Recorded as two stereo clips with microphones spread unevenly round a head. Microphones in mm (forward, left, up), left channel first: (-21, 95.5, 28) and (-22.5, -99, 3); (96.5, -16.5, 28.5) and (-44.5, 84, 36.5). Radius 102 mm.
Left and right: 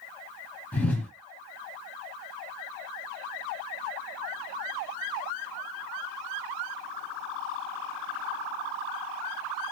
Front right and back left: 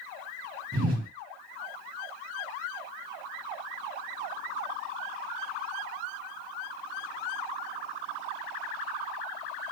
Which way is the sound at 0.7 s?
165° left.